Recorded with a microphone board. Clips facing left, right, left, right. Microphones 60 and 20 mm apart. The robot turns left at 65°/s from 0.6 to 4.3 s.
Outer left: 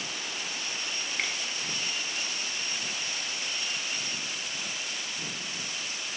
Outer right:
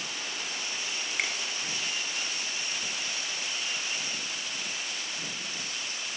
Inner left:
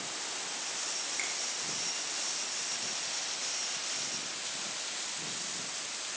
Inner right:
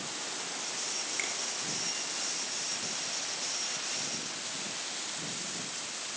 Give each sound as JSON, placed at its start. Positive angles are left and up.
{"t": 1.2, "sound": "a finger snap", "side_deg": -10, "distance_m": 1.0}